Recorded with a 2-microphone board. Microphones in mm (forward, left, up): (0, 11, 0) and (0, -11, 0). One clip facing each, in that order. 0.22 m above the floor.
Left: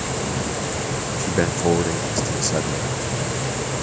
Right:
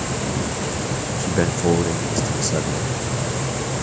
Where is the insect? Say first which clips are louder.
Right 1 dB; 5° right (ahead or behind).